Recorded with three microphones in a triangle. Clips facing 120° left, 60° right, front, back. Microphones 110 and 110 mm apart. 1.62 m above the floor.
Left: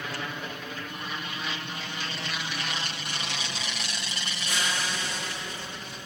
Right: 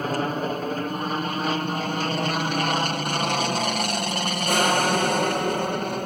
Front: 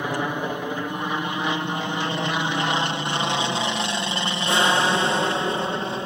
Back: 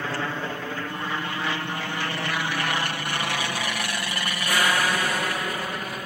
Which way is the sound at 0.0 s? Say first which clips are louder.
Right 10 dB, front 3 dB; 65° right.